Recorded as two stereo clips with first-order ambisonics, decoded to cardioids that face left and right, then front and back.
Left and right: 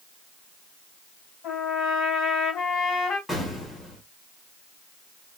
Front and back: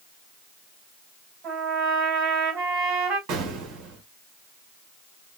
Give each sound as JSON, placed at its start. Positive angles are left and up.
{"t": 1.4, "sound": "a trumpet", "azimuth_deg": 130, "distance_m": 2.5}
{"t": 3.3, "sound": "an explosion", "azimuth_deg": 170, "distance_m": 1.3}